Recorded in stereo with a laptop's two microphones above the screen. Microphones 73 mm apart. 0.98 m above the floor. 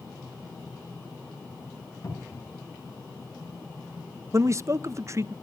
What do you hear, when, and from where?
2.0 s a cupboard door: 55° left (ahead or behind), 3.5 m
4.3 s a man speaking: 35° right (ahead or behind), 0.5 m